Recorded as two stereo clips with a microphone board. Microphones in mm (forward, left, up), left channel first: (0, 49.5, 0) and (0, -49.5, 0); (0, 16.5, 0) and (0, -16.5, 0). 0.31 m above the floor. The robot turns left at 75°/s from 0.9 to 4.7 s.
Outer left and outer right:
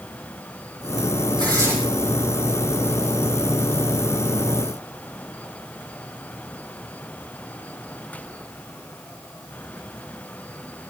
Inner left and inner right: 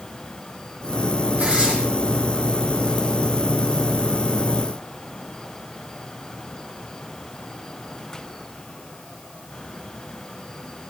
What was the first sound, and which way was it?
Tearing paper, 50° right (ahead or behind).